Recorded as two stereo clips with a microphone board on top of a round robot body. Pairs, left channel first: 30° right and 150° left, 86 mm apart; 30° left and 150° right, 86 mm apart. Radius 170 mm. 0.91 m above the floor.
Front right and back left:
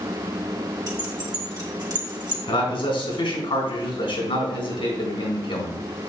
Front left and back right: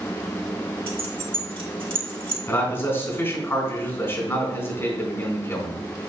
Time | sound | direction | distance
0.9 | keys jangling | 165° right | 2 m
2.5 | a man speaking | 30° right | 4 m